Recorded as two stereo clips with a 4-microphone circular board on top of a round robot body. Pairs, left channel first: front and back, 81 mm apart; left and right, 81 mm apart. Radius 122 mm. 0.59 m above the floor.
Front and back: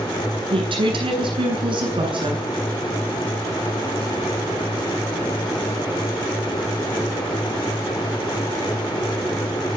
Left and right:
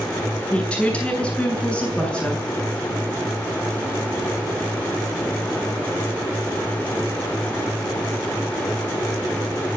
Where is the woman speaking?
165° left, 8.5 m.